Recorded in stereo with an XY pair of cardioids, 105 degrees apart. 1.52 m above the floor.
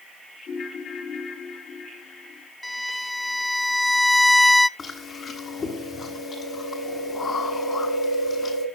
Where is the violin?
10° left, 0.5 m.